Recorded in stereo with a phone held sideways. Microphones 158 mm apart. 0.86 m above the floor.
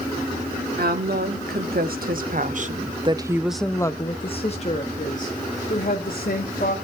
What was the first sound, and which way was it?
A woman speaking, 80° right.